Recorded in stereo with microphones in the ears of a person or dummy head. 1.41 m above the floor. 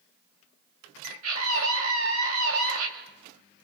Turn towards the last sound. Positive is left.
turn(degrees=-80)